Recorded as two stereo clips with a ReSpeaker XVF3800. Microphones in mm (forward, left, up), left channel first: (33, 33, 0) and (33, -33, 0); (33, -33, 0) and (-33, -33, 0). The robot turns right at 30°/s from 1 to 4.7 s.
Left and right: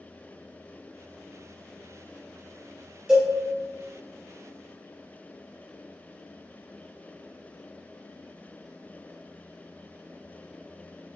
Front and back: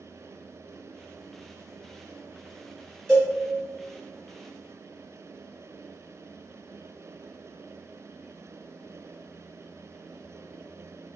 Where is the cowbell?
40° right, 1.6 m; by 3.3 s 35° right, 1.6 m.